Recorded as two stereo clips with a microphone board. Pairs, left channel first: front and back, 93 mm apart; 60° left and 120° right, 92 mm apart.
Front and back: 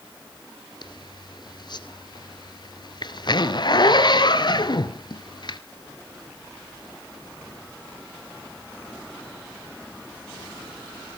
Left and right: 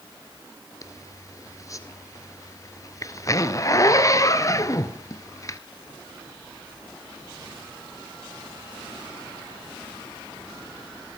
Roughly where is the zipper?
Ahead.